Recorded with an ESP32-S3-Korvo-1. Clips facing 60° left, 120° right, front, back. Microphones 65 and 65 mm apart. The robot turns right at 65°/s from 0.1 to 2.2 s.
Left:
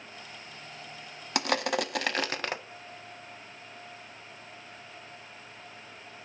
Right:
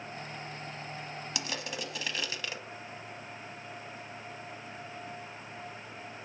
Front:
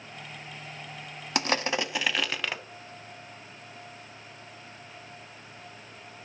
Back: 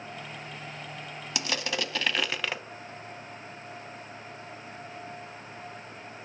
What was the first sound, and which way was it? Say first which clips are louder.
Crushing: left 12 dB, front 5 dB; 35° left.